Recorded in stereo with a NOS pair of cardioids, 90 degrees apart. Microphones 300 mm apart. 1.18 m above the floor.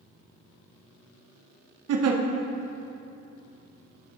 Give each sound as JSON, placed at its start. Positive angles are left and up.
{"t": 1.9, "sound": "a giggle", "azimuth_deg": -55, "distance_m": 0.9}